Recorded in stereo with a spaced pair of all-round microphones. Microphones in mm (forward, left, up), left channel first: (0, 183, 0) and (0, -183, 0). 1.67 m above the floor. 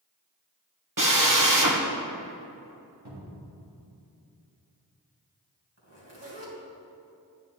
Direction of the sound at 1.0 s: 55° right (ahead or behind).